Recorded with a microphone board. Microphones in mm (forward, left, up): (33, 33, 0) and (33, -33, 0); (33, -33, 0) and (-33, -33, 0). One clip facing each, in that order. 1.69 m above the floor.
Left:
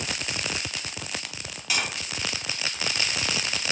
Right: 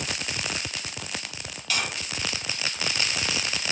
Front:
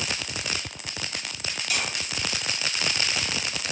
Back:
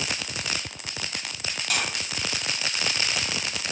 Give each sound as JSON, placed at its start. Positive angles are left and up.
{"t": 1.7, "sound": "tapping", "azimuth_deg": 160, "distance_m": 0.8}